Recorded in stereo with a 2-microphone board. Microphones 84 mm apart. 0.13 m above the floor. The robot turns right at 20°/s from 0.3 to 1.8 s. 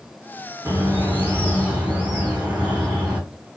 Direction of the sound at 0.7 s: 35° right (ahead or behind).